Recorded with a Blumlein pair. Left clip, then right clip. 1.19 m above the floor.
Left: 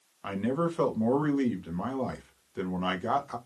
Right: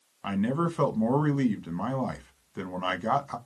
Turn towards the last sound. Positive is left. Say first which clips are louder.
# even
turn(degrees=-10)